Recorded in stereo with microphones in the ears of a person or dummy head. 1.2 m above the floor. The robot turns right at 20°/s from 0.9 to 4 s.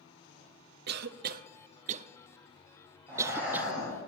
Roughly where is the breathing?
Centre.